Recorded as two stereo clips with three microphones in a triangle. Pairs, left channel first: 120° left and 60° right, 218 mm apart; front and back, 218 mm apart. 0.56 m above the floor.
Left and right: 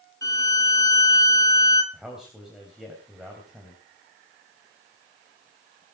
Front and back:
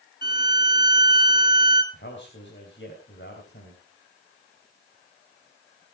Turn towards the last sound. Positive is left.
turn(degrees=30)